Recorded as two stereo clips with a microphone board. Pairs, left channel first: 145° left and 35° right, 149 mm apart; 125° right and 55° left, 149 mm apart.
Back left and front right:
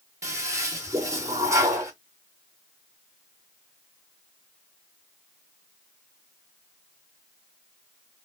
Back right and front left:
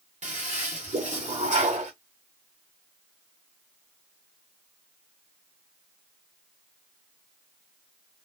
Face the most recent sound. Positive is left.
turn(degrees=30)